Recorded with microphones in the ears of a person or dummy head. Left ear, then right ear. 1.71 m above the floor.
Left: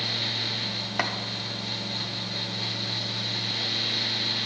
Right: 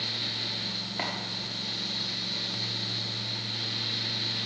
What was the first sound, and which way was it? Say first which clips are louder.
Chopping: left 6 dB; 40° left (ahead or behind).